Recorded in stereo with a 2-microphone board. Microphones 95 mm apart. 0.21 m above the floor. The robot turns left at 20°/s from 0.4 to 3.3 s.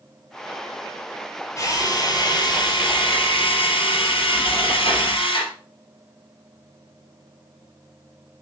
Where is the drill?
145° left, 3.5 m; by 5.5 s 110° left, 3.5 m.